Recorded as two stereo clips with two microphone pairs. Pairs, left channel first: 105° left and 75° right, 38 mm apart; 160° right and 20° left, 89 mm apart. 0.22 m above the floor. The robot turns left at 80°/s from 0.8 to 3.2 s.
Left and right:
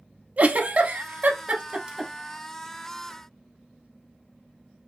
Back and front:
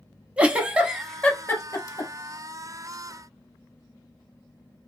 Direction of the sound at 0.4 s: 55° right.